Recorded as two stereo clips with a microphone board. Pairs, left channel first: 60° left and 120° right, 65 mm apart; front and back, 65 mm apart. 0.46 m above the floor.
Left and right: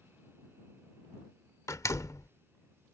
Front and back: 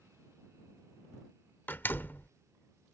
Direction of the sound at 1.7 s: 50° left.